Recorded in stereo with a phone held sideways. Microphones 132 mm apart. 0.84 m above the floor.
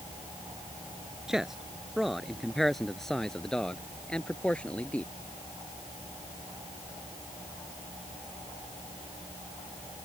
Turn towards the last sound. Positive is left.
turn(degrees=10)  # may be behind; listen again after turning